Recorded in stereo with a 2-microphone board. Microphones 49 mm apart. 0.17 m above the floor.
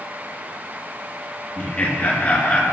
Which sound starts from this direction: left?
Laughter, at 1.6 s.